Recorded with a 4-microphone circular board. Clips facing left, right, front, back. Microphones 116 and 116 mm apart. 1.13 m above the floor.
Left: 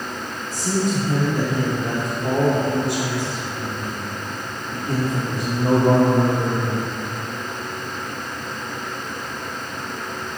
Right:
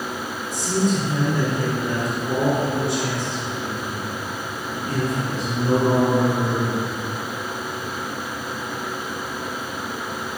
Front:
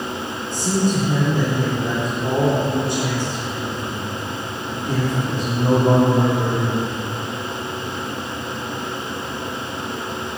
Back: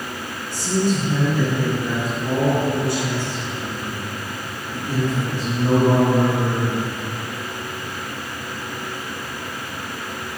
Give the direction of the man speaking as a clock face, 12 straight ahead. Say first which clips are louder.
Right 1 dB, even; 10 o'clock.